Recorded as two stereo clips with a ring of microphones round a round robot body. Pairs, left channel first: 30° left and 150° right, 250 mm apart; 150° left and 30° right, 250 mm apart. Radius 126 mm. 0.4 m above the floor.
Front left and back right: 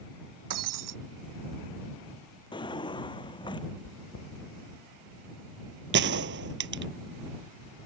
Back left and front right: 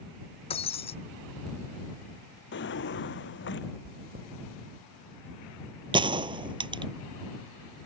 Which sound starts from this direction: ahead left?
Chewing, at 3.8 s.